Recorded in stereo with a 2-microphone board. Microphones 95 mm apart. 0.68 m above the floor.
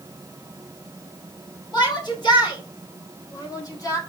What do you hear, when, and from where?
1.7 s a shout: 50° left (ahead or behind), 4.5 m; by 4.0 s 40° left (ahead or behind), 3 m